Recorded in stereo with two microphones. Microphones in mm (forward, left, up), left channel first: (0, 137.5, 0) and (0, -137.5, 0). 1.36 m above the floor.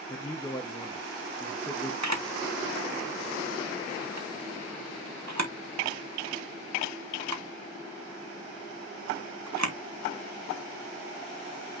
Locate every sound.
0.1 s a man speaking: 10° left (ahead or behind), 1.0 m
2.0 s a camera shutter: 75° right (ahead or behind), 1.6 m